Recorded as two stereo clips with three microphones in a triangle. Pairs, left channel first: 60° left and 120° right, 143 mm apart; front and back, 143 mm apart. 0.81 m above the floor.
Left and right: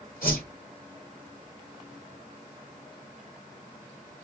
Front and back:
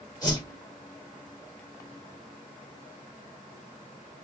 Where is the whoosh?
65° left, 2 m.